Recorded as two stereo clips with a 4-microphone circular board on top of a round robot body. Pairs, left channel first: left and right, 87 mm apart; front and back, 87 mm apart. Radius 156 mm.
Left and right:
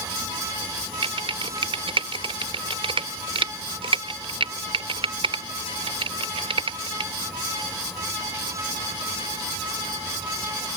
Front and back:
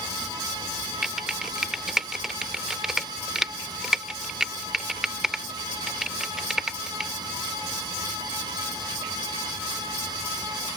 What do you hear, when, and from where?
1.0 s typing on a keyboard: 95° right